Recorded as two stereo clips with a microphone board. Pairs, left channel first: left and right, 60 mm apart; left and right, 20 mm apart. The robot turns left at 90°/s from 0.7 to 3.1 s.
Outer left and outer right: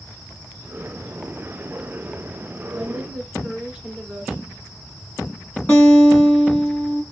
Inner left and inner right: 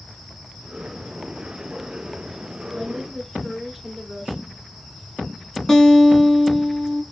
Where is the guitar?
25° left (ahead or behind), 1.4 m.